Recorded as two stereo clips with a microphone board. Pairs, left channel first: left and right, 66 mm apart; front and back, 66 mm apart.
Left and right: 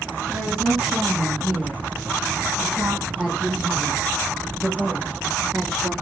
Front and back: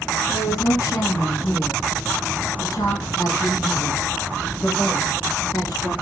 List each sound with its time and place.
0.3 s a woman speaking: 20° right, 7.5 m; by 5.9 s 5° right, 9.5 m